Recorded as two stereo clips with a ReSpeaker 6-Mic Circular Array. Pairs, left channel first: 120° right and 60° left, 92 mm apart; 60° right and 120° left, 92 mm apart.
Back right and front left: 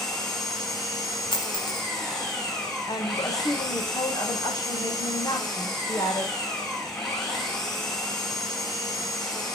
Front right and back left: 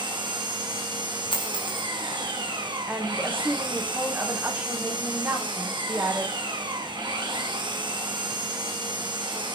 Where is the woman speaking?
170° right, 6.5 m.